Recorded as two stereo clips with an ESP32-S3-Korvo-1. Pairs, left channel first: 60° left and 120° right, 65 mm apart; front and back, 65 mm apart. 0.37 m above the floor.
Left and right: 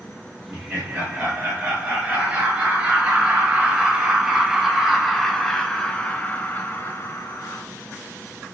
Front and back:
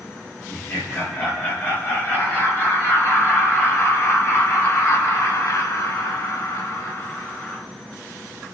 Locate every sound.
0.5 s laughter: 55° right, 6 m; by 7.7 s 50° left, 1.7 m